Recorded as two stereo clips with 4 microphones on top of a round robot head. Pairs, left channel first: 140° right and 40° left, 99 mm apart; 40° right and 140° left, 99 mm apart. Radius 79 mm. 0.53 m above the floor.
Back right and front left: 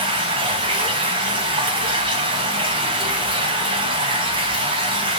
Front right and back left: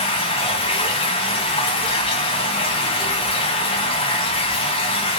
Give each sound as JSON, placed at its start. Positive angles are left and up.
{"t": 0.0, "sound": "running water", "azimuth_deg": 0, "distance_m": 0.8}